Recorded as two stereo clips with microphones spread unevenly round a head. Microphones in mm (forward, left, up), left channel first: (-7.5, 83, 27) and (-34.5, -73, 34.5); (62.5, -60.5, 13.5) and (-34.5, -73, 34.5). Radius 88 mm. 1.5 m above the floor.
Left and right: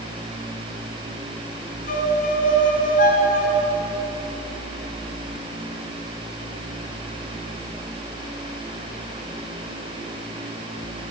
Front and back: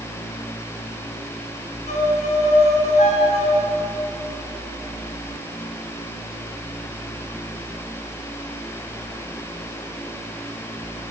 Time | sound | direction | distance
1.9 | a violin | 35° left | 5 m